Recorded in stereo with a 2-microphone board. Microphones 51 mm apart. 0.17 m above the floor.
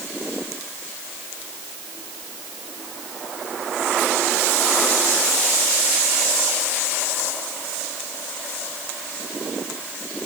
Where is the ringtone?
I don't hear a ringtone.